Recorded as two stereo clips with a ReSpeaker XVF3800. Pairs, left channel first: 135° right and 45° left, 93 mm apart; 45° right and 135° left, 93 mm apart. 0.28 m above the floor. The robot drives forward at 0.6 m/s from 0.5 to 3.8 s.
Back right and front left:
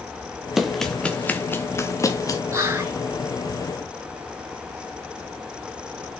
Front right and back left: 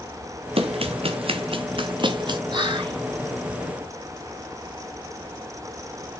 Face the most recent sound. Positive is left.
turn(degrees=115)